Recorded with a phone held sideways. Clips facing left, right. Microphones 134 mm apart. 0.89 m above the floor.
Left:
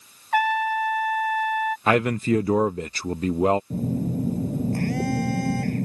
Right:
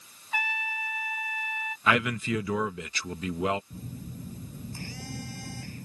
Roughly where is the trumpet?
Left.